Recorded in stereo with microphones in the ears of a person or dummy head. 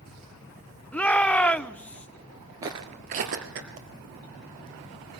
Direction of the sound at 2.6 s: 20° right (ahead or behind).